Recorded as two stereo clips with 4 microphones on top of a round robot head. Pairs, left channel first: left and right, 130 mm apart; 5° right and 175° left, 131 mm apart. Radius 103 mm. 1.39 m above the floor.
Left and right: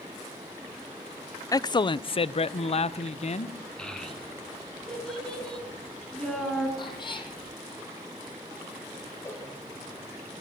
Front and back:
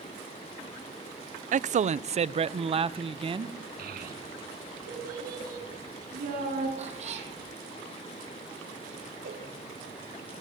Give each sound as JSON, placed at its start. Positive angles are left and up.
{"t": 1.5, "sound": "a man speaking", "azimuth_deg": 155, "distance_m": 0.6}
{"t": 3.8, "sound": "a child speaking", "azimuth_deg": 175, "distance_m": 9.0}
{"t": 6.8, "sound": "a cat meowing", "azimuth_deg": 140, "distance_m": 5.0}
{"t": 9.2, "sound": "a cowbell", "azimuth_deg": 160, "distance_m": 3.5}